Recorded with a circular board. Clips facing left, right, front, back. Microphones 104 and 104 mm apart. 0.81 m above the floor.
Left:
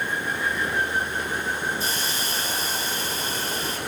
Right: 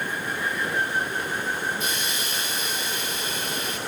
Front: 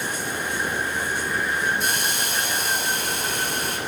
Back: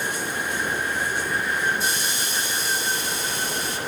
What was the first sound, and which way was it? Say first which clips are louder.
A hiss: left 1 dB, front 1 dB; 35° left.